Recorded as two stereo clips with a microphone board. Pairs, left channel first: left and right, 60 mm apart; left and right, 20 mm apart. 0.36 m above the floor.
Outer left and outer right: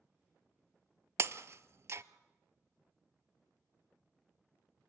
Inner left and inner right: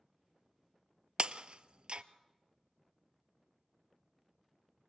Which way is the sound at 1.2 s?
50° right (ahead or behind).